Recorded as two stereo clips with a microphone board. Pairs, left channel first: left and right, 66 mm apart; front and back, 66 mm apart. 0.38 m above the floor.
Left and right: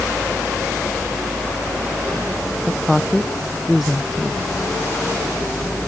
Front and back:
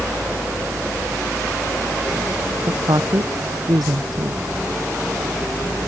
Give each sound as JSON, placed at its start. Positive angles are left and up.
{"t": 2.7, "sound": "a woman speaking", "azimuth_deg": -175}